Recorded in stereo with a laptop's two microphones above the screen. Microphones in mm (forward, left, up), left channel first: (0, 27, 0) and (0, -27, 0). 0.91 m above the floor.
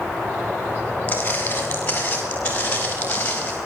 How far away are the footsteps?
About 8 m.